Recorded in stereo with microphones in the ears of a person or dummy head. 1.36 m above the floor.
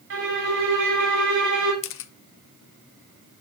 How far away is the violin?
About 3 m.